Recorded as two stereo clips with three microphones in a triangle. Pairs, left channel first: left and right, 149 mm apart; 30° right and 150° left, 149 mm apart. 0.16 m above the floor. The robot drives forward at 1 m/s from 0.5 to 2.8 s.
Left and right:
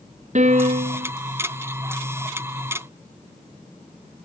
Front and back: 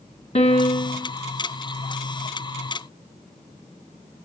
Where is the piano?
65° right, 1.3 m; by 1.1 s 100° right, 1.2 m.